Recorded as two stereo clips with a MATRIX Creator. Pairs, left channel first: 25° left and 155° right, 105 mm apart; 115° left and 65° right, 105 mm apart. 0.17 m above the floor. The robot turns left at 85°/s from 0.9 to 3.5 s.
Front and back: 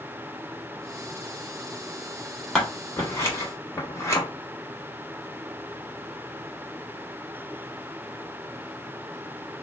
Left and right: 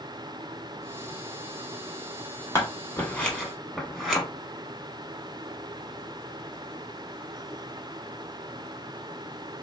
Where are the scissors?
100° left, 1.0 m; by 4.2 s 20° left, 1.0 m.